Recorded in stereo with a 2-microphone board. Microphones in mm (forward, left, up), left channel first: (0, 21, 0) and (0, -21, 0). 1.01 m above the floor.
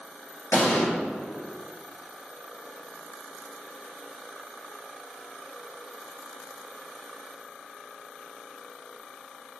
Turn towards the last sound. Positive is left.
turn(degrees=80)